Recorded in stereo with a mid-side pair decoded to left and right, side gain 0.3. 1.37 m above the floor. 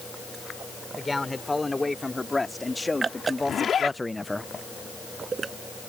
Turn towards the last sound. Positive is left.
turn(degrees=65)